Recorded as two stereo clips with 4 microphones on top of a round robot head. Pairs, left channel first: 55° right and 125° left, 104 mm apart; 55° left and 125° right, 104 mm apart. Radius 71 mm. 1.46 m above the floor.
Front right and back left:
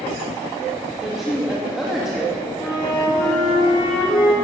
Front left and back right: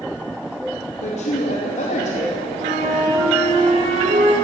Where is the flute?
105° right, 4 m.